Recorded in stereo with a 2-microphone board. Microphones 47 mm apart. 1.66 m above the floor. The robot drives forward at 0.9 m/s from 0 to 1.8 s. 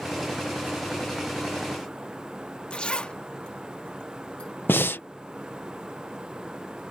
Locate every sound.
2.7 s a zipper: 25° left (ahead or behind)
4.7 s breathing: 50° left (ahead or behind)